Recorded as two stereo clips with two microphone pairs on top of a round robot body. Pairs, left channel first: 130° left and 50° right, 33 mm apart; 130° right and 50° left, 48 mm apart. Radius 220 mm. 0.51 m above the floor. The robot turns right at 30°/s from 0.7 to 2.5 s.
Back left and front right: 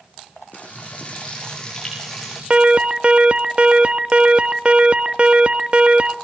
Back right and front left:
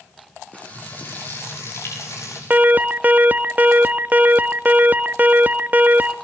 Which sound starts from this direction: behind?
Frying, at 0.5 s.